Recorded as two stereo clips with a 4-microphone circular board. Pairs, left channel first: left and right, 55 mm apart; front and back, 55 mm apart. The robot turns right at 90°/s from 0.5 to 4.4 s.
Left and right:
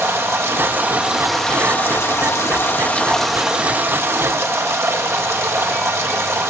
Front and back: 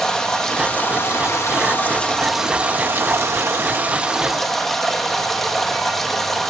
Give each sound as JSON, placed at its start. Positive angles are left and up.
{"t": 0.0, "sound": "running water", "azimuth_deg": -75, "distance_m": 0.9}